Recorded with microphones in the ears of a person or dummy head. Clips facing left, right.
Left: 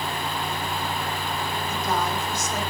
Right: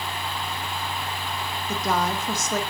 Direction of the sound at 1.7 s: 50° right (ahead or behind).